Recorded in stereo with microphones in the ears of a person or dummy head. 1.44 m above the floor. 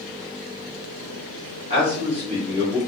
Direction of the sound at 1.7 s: 30° right (ahead or behind).